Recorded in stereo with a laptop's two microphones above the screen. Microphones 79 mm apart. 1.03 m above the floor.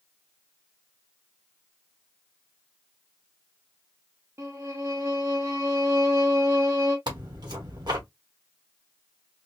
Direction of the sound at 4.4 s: 35° right (ahead or behind).